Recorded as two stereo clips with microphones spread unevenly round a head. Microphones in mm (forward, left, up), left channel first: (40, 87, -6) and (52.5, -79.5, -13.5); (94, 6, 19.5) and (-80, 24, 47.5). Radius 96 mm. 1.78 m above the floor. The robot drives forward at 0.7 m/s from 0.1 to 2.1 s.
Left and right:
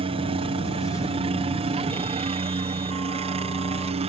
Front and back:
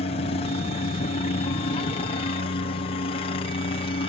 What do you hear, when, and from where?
0.0 s a helicopter: 40° right; by 4.1 s 45° right